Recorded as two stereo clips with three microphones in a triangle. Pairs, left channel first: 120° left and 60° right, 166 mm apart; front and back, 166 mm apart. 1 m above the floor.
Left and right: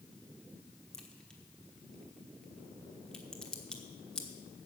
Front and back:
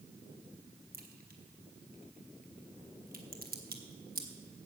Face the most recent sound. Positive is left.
turn(degrees=-155)